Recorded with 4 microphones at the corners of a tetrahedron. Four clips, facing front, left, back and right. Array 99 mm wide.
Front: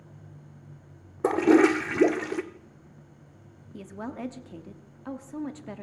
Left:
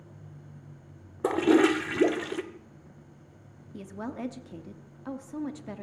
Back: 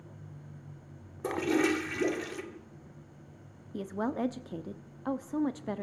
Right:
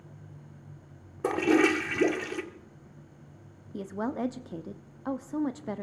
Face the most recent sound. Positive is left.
turn(degrees=-125)